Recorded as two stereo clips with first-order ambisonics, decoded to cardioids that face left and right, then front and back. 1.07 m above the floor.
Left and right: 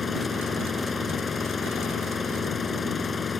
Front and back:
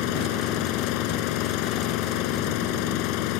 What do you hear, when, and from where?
0.0 s an engine running: 15° left